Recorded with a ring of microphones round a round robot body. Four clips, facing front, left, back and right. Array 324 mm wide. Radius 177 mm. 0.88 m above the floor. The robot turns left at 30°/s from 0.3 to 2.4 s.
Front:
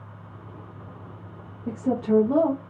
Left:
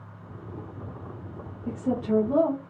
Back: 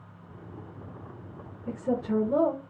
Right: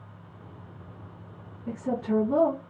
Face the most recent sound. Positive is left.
turn(degrees=0)